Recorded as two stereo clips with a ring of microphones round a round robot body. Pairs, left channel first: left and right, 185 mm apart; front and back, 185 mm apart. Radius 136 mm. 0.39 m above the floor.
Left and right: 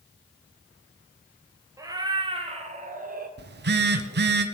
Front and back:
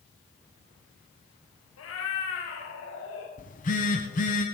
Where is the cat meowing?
15° right, 2.5 m; by 3.3 s 50° right, 2.5 m.